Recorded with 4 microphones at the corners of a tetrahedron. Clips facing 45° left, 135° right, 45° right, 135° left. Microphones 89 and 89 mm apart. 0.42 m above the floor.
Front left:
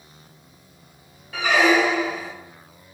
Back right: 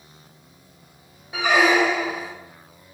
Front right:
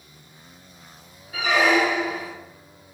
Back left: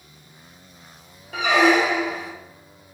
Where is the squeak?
150° left, 0.5 m.